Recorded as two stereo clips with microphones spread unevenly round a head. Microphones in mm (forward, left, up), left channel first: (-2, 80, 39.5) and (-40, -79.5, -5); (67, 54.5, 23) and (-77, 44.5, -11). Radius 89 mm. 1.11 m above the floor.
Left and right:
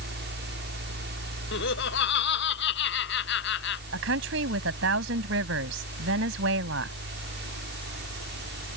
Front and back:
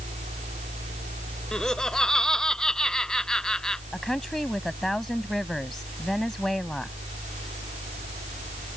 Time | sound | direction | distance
0.0 | a fan | 120° right | ?
1.5 | laughter | 90° left | ?
3.9 | a woman speaking | 80° right | ?